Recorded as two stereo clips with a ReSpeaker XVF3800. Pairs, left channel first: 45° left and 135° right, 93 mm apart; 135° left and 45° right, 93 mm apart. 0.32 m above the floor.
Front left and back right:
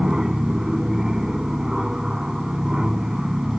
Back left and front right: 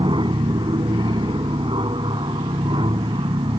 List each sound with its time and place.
0.0 s an aircraft: 50° right